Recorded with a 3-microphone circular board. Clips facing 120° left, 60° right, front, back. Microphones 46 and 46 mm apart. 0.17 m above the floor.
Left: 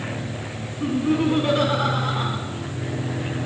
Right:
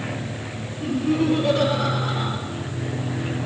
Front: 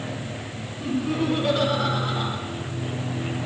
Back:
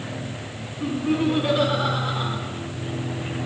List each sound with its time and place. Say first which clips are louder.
0.8 s laughter: left 1 dB, back 2 dB; 110° left, 1.5 m